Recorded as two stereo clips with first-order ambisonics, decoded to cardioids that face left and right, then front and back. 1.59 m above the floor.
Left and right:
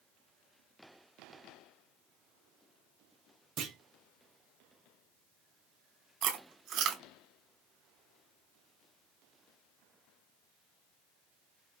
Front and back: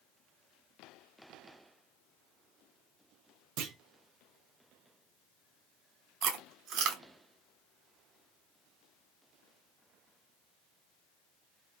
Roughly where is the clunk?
Behind right.